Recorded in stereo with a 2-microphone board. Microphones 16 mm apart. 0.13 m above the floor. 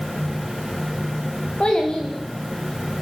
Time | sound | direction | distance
1.6 | a child speaking | 80° left | 8 m